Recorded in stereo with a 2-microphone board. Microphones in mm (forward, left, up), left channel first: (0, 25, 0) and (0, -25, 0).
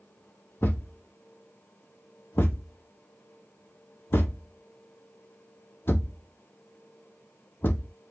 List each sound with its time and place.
0.6 s a thud: 45° left (ahead or behind), 0.7 m